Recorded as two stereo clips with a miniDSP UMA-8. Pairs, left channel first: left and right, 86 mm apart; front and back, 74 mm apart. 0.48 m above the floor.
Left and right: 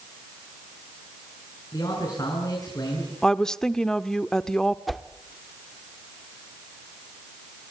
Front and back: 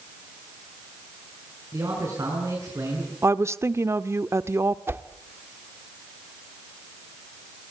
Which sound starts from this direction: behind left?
A man speaking, at 1.7 s.